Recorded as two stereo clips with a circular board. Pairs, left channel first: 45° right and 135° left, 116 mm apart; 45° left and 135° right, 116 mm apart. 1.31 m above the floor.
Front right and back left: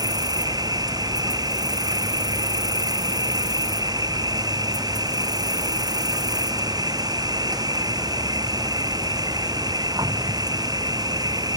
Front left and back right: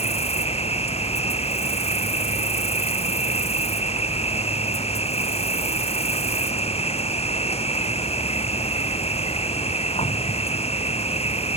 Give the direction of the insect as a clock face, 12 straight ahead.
9 o'clock.